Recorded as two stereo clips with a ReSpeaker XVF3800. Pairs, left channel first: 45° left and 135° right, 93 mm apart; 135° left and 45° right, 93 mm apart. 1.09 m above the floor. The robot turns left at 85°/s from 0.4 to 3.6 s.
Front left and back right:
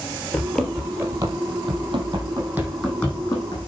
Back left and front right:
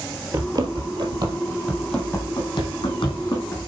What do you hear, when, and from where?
0.3 s running footsteps: 20° right, 1.5 m; by 3.7 s 65° left, 4 m